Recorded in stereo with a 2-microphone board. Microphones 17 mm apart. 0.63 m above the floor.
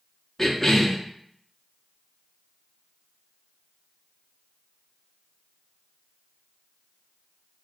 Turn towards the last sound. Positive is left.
turn(degrees=15)  # may be behind; listen again after turning